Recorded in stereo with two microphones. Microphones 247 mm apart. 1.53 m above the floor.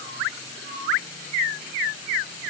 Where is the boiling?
I don't hear boiling.